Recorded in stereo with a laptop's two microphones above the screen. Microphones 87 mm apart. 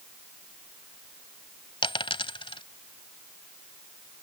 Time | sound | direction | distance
1.8 | a dropped coin | 80° left | ?